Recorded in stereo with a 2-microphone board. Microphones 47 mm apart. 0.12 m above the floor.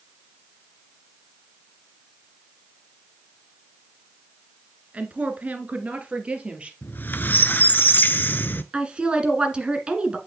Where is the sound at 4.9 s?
30° right (ahead or behind), 1.5 m; by 6.7 s 25° right (ahead or behind), 3 m.